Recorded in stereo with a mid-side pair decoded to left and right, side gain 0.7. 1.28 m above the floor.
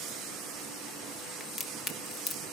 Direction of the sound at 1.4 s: 35° left.